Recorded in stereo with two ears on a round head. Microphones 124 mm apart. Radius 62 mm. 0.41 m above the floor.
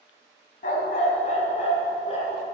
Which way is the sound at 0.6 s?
60° left (ahead or behind).